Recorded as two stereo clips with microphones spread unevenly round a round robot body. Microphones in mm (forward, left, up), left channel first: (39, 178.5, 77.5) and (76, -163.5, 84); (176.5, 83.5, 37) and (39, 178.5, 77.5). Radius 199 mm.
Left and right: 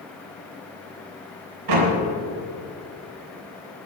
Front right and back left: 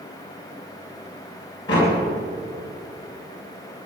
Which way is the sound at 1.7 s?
110° right.